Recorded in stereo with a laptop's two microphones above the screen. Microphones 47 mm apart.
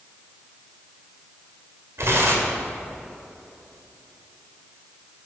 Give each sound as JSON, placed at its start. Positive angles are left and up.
{"t": 2.0, "sound": "tearing paper", "side_deg": -75, "distance_m": 1.8}